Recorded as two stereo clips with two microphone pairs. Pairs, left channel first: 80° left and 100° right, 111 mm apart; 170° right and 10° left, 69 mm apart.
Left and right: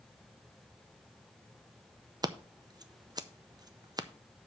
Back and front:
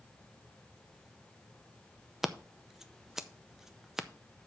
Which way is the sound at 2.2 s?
75° right.